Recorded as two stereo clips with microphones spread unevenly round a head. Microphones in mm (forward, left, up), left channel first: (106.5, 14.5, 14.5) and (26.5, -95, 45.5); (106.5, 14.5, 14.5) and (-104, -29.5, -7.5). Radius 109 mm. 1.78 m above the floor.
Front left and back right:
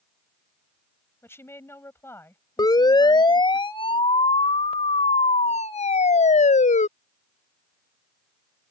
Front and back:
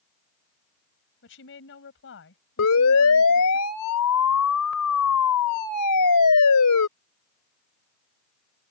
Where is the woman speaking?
20° right.